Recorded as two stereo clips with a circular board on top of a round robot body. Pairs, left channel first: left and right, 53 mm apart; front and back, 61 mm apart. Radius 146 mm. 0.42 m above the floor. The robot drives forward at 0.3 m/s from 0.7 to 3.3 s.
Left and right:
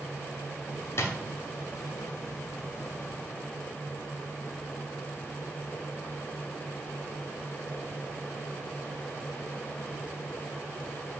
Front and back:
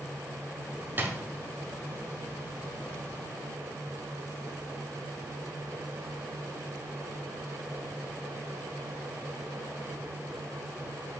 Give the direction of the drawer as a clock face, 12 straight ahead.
8 o'clock.